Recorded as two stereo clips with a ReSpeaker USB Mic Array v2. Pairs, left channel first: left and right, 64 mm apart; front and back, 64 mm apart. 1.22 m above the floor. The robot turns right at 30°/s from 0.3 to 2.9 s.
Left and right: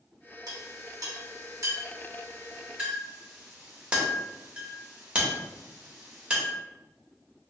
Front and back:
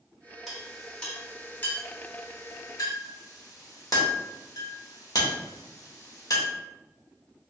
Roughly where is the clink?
Right.